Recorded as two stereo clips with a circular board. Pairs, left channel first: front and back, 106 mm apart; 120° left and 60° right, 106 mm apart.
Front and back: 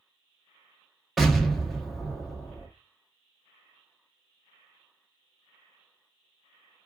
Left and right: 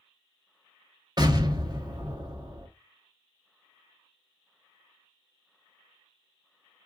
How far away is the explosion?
About 0.9 m.